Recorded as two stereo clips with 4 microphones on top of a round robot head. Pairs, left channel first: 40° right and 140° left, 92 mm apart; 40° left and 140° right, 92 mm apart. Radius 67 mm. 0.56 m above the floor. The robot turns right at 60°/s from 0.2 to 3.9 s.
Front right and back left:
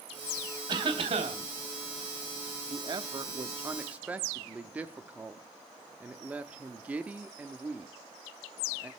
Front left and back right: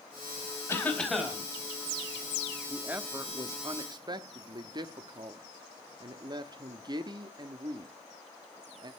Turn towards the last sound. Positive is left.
turn(degrees=-145)